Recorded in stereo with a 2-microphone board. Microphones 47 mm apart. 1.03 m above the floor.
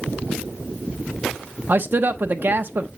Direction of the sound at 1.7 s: 45° right (ahead or behind).